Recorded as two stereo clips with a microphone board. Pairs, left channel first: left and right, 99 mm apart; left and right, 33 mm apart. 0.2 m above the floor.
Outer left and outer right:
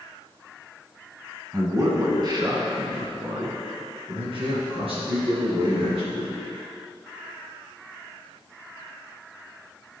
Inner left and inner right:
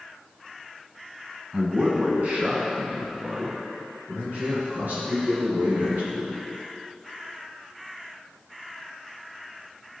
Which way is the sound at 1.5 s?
35° right (ahead or behind).